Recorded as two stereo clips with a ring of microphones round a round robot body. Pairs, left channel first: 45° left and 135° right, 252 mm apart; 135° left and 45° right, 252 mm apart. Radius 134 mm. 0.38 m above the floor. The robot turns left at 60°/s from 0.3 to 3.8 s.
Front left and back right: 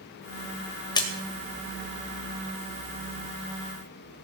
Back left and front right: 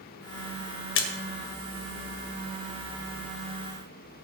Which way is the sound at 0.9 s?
115° left.